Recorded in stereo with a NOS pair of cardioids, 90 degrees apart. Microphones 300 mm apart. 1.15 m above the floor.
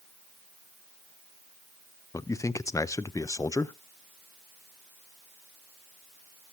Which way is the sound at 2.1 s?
10° left.